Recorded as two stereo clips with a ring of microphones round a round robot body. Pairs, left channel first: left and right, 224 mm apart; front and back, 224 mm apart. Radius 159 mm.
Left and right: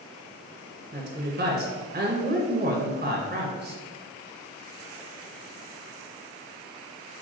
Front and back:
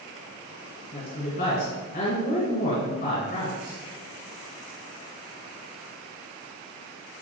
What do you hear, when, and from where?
0.9 s a woman speaking: 55° right, 2.5 m